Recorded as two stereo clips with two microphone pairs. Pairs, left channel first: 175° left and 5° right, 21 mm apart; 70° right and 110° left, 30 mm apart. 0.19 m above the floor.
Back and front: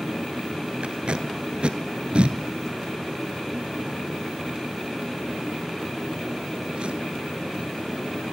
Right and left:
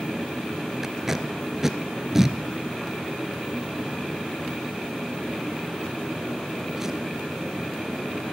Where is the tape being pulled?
30° left, 0.6 m.